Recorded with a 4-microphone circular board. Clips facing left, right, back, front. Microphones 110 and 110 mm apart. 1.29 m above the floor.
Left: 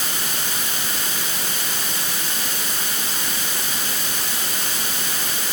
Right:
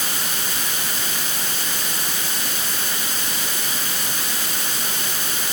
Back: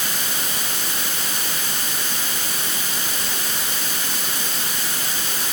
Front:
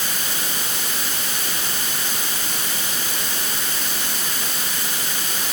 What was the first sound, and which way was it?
Only background noise.